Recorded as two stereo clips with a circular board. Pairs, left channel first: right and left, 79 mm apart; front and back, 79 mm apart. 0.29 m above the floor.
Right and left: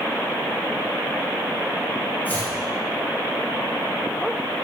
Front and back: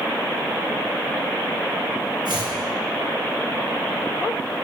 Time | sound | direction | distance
2.2 | chopping | 160° right | 0.9 m